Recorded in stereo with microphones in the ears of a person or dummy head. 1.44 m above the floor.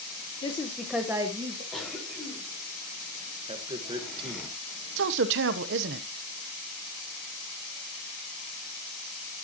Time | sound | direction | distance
0.4 | a woman speaking | 30° left (ahead or behind) | 1.2 m
1.7 | a cough | 5° left (ahead or behind) | 4.5 m
3.5 | a man speaking | 30° right (ahead or behind) | 1.4 m
5.0 | a man speaking | 65° right (ahead or behind) | 1.0 m